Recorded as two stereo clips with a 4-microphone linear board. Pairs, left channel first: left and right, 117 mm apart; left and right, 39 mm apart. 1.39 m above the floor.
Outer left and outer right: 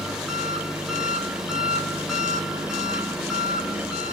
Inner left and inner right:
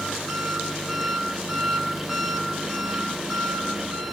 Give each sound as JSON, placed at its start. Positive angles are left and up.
{"t": 0.0, "sound": "an engine running", "side_deg": -5, "distance_m": 3.5}